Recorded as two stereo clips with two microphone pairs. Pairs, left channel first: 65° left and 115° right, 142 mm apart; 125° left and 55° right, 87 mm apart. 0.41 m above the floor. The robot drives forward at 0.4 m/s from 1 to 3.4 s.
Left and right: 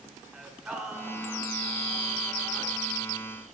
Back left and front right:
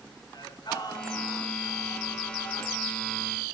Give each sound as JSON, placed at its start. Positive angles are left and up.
{"t": 0.3, "sound": "singing", "azimuth_deg": 160, "distance_m": 2.5}